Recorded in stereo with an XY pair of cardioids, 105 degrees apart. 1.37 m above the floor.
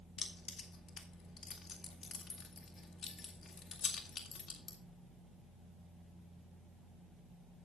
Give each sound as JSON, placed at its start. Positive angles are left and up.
{"t": 0.2, "sound": "keys jangling", "azimuth_deg": 50, "distance_m": 2.0}